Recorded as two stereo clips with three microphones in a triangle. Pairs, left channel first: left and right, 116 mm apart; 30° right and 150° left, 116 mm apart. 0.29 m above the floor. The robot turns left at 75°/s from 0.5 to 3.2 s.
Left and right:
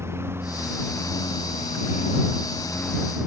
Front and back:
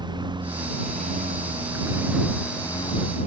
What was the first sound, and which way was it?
A lawn mower, 160° right.